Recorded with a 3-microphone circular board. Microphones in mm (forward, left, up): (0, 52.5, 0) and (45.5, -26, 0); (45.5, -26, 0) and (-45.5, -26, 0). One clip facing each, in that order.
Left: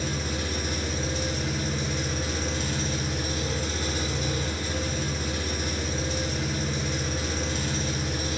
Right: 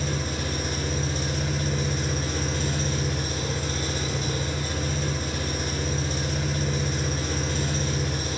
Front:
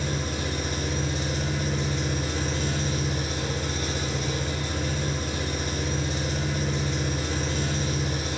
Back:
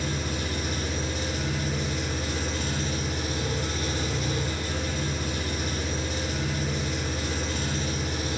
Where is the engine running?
50° right, 1.0 m.